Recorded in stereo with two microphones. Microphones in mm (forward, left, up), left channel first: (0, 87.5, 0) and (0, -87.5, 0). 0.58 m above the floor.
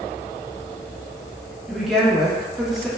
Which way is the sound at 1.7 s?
Centre (ahead or behind).